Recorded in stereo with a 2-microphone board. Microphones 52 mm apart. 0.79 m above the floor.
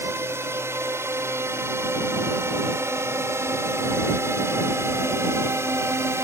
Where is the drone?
55° right (ahead or behind); by 6.2 s 60° right (ahead or behind).